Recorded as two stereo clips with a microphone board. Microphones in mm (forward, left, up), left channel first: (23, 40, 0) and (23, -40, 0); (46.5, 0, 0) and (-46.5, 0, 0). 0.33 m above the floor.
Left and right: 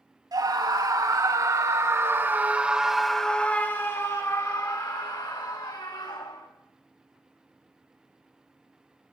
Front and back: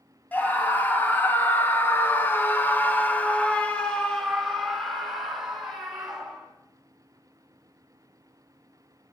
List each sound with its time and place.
0.3 s a scream: 70° right, 2 m; by 6.5 s 95° left, 2.5 m